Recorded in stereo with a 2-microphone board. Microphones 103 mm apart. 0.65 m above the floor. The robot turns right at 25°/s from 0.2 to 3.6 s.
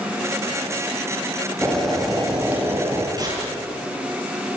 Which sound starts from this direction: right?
Tearing paper, at 3.2 s.